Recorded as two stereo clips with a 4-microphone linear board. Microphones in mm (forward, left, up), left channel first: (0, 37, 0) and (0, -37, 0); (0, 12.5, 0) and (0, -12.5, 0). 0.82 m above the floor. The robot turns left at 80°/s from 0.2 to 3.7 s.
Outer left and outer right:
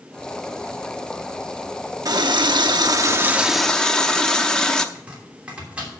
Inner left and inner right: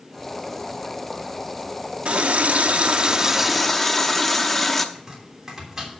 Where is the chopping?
20° right (ahead or behind), 3 m.